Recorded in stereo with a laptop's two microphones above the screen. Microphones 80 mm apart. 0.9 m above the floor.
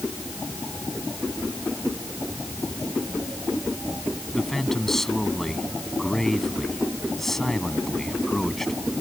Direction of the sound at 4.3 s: 5° left (ahead or behind).